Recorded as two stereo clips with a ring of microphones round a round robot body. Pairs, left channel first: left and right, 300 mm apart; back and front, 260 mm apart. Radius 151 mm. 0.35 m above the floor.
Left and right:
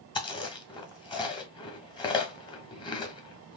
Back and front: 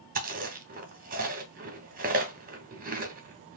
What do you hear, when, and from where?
0.1 s chewing: 25° left, 1.2 m